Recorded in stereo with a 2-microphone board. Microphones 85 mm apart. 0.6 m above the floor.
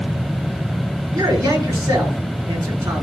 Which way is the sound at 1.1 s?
45° right (ahead or behind).